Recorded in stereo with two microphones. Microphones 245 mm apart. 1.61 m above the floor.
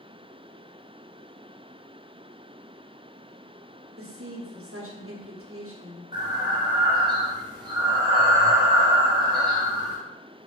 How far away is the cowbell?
No cowbell in this recording.